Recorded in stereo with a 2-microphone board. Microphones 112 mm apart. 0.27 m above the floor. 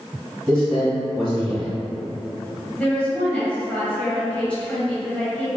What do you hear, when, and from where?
0.5 s a man speaking: 10° left (ahead or behind), 1.6 m
2.8 s a woman speaking: 10° left (ahead or behind), 1.1 m